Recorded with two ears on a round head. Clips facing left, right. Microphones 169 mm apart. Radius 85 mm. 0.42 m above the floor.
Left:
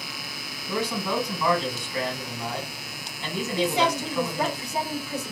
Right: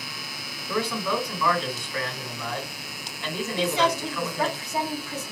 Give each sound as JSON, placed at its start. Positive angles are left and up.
{"t": 0.7, "sound": "a man speaking", "side_deg": 20, "distance_m": 2.5}
{"t": 3.6, "sound": "a woman speaking", "side_deg": 15, "distance_m": 1.8}